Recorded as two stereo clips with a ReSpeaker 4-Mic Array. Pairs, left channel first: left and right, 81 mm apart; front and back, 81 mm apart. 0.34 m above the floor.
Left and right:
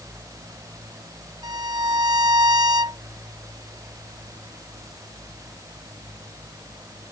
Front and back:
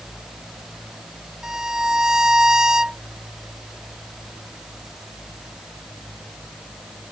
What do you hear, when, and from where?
1.4 s a violin: 100° right